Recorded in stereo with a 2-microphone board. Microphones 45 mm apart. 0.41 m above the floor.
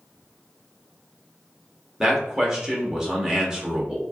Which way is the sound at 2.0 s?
15° right (ahead or behind).